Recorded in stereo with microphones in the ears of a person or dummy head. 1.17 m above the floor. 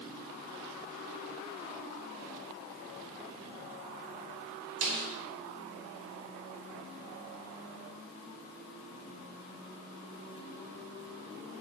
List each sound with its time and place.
4.8 s a snare drum: 75° right (ahead or behind), 5 m